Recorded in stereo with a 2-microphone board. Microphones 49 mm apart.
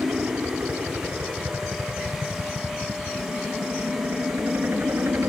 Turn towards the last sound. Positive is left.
turn(degrees=-55)  # may be behind; listen again after turning